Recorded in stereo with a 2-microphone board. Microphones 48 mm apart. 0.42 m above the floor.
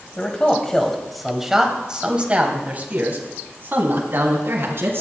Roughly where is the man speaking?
Left.